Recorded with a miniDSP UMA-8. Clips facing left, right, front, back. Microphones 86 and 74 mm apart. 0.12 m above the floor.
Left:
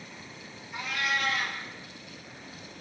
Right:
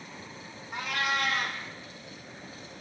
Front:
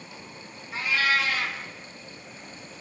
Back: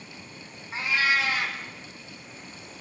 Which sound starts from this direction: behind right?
A cat meowing, at 0.7 s.